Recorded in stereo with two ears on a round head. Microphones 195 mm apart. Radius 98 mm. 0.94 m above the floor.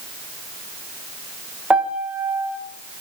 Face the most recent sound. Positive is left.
turn(degrees=-5)  # may be behind; listen again after turning